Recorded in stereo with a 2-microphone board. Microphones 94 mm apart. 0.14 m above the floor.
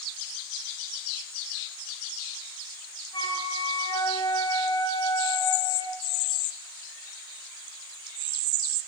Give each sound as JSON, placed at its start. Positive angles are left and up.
{"t": 3.1, "sound": "a flute", "side_deg": 50, "distance_m": 2.0}